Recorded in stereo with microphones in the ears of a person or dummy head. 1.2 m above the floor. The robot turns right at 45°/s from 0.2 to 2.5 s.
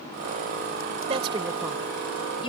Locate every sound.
1.1 s a woman speaking: 25° right (ahead or behind); by 2.5 s 40° left (ahead or behind)